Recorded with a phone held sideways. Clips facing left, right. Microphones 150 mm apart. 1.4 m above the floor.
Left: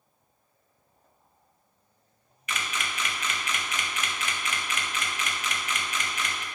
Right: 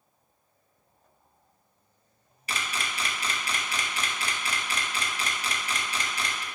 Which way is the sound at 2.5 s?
35° right (ahead or behind).